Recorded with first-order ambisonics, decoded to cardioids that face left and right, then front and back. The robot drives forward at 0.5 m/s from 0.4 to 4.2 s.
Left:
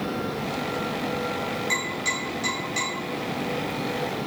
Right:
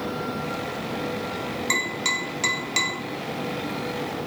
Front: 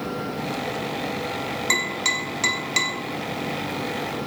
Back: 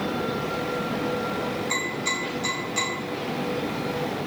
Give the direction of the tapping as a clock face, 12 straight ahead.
1 o'clock.